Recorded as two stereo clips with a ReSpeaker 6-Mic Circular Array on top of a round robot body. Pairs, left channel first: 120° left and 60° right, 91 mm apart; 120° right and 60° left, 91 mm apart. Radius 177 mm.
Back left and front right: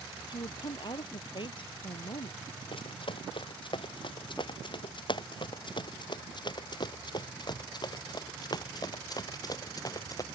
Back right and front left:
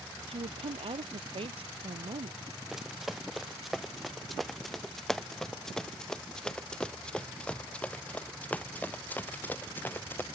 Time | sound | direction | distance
0.3 | a woman speaking | 80° left | ?
2.7 | running footsteps | 145° left | ?